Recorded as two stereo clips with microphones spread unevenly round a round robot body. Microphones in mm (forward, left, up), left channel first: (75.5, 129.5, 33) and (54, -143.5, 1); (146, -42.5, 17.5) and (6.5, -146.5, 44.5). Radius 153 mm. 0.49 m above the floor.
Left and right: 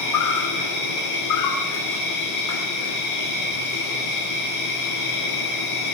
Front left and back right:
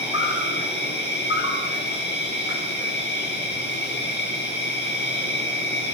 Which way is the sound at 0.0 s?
75° left.